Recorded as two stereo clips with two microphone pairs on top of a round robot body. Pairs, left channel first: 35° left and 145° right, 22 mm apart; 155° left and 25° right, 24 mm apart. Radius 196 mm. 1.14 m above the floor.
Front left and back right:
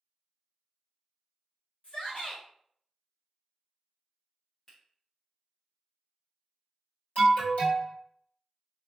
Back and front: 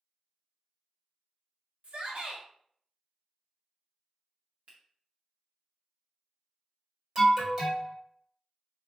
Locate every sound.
1.8 s a shout: straight ahead, 1.2 m
4.7 s a finger snap: 40° right, 0.7 m
7.2 s an alarm: 40° left, 1.3 m